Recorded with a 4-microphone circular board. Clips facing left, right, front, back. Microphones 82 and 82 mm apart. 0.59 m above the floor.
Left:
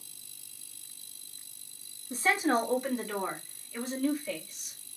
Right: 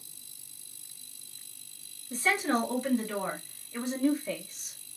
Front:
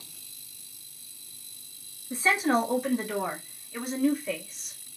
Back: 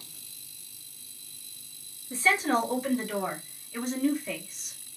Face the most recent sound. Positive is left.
turn(degrees=-90)